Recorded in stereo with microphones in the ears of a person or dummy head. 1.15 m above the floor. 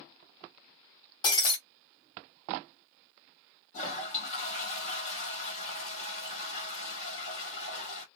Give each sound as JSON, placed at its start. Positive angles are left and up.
{"t": 1.2, "sound": "breaking glass", "side_deg": 30, "distance_m": 1.8}
{"t": 3.7, "sound": "a toilet flushing", "side_deg": 40, "distance_m": 1.5}